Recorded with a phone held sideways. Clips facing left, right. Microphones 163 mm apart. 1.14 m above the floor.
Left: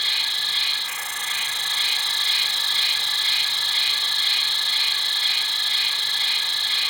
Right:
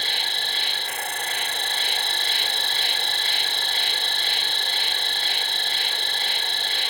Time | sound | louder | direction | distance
0.0 | an insect | right 5 dB | 60° right (ahead or behind) | ?